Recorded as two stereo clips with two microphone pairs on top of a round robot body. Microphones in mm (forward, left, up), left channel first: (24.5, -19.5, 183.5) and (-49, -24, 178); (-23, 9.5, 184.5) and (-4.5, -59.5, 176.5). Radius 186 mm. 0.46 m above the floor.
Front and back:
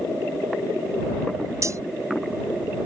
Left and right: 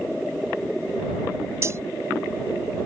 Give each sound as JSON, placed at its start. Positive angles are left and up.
{"t": 1.6, "sound": "cutlery clinking", "azimuth_deg": -130}